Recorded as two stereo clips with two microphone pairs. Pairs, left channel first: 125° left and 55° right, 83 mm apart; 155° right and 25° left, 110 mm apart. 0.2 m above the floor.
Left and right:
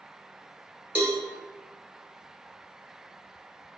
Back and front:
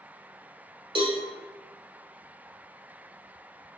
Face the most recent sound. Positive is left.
turn(degrees=10)